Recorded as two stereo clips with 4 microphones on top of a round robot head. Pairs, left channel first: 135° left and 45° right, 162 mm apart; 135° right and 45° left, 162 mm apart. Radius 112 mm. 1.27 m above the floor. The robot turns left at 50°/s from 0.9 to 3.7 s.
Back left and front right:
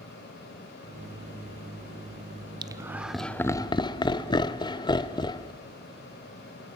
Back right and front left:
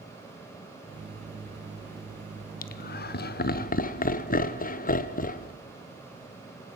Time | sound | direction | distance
2.6 | laughter | 110° right | 1.0 m